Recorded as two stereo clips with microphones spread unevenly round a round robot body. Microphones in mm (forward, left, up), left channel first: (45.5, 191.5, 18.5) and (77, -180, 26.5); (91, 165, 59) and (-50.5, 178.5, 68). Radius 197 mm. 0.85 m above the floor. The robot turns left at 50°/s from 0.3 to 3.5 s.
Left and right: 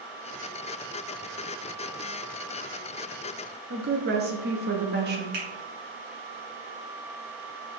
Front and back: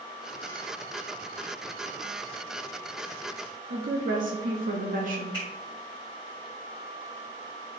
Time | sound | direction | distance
3.7 | a woman speaking | 150° right | 0.9 m
5.3 | a finger snap | 75° right | 3.5 m